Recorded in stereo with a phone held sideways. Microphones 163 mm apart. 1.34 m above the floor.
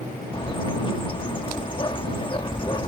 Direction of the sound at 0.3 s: 30° left (ahead or behind).